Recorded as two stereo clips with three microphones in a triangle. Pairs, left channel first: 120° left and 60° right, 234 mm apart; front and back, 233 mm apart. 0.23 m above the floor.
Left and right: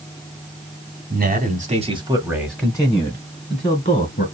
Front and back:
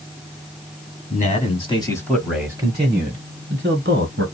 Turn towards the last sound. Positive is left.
turn(degrees=155)